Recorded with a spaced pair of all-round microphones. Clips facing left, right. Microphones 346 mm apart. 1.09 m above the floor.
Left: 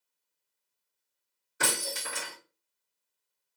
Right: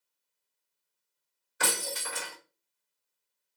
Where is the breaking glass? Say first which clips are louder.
Even; 55° left (ahead or behind), 1.9 m.